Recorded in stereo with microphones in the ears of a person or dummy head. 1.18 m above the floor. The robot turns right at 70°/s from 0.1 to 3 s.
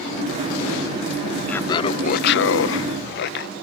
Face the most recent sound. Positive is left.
turn(degrees=115)